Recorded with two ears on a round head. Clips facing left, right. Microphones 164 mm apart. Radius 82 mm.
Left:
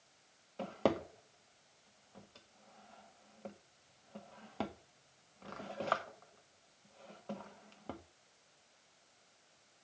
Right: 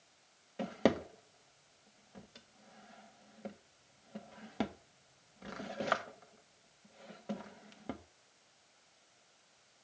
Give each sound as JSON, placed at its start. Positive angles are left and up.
{"t": 0.6, "sound": "a drawer", "side_deg": -15, "distance_m": 0.7}